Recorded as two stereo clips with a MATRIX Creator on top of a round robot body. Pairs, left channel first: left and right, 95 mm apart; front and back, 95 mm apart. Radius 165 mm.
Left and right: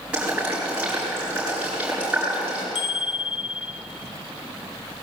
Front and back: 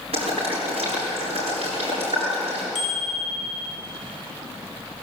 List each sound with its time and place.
0.1 s boiling: 170° right, 8 m
2.8 s a bicycle bell: 95° left, 5 m